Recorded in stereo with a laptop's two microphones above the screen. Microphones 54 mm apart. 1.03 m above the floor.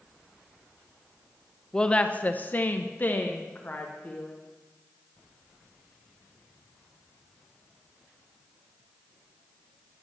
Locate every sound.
1.7 s a woman speaking: 15° left (ahead or behind), 0.5 m; by 4.3 s 30° left (ahead or behind), 1.6 m